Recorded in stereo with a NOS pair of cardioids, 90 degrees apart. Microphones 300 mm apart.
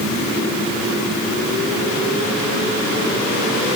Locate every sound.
Only background noise.